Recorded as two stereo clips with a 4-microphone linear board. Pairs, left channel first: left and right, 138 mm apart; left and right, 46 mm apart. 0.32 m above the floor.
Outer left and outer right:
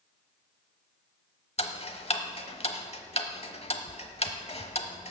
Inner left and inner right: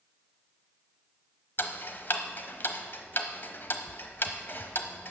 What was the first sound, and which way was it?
Ticking, 45° left (ahead or behind).